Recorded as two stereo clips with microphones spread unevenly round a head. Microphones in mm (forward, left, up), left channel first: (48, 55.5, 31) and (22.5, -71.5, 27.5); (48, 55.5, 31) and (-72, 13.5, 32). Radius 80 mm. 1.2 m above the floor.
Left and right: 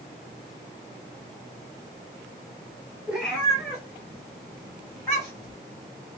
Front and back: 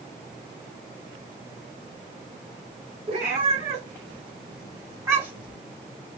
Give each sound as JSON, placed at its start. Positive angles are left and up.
{"t": 3.1, "sound": "a cat meowing", "azimuth_deg": 170, "distance_m": 3.0}